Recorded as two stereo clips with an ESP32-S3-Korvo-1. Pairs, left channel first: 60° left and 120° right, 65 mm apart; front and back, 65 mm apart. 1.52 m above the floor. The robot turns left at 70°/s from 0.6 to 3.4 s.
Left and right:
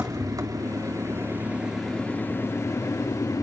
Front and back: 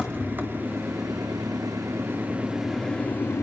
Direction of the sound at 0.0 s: 125° right.